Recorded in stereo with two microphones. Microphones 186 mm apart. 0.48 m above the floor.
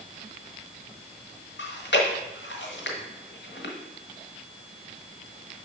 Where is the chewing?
75° left (ahead or behind), 1.4 m.